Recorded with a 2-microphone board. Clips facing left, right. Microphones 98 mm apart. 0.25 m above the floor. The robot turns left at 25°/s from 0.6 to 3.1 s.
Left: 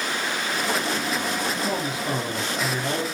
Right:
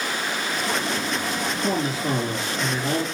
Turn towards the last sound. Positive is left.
turn(degrees=-175)